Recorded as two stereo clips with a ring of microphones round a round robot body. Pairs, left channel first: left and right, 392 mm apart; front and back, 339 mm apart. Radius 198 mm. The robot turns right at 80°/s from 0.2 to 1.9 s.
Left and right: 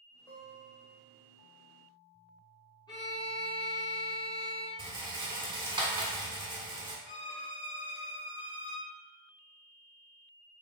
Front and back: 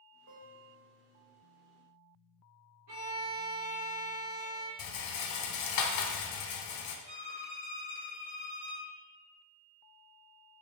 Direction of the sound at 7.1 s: 145° left.